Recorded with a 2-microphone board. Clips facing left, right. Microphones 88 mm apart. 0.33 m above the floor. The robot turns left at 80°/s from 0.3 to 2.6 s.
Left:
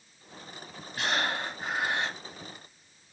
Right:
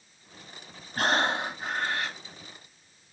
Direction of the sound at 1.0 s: 125° right.